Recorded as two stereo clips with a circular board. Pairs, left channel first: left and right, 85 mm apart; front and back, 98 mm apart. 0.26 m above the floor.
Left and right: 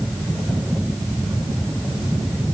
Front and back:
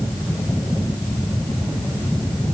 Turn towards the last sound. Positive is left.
No sound to turn to.